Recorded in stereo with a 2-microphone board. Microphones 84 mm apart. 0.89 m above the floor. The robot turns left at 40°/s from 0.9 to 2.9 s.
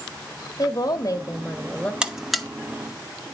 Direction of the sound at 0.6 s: 50° left.